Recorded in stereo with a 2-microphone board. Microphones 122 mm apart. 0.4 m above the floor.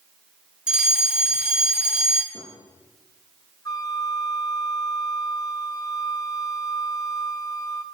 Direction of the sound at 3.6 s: 30° left (ahead or behind).